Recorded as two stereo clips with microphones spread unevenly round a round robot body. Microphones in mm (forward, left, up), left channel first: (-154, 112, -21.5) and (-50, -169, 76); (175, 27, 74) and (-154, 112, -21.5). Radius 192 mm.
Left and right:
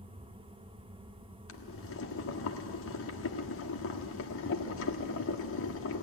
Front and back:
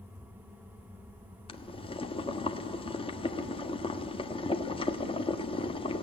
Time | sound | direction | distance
1.5 | boiling | 65° left | 1.3 m